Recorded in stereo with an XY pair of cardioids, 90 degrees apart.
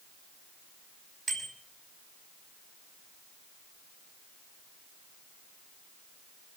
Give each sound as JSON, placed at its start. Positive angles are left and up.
{"t": 1.3, "sound": "a bicycle bell", "azimuth_deg": -50, "distance_m": 5.5}